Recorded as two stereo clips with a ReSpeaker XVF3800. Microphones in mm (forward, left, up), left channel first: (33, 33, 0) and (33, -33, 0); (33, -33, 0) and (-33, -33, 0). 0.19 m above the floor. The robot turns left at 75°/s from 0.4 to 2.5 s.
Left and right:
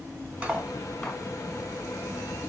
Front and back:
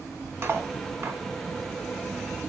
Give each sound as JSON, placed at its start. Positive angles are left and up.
{"t": 0.4, "sound": "cutlery clinking", "azimuth_deg": -155, "distance_m": 0.8}